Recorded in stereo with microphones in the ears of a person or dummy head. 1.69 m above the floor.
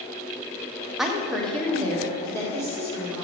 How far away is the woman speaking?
About 0.9 m.